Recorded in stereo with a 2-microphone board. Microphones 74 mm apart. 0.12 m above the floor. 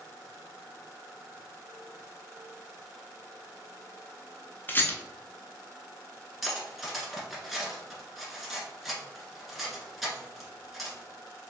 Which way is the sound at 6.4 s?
Centre (ahead or behind).